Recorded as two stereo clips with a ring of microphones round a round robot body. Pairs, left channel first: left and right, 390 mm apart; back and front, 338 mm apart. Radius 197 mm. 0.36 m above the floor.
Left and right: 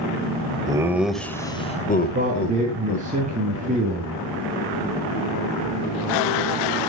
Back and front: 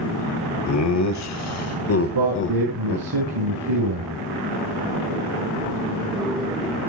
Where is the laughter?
165° right, 1.6 m; by 3.0 s 125° left, 1.7 m.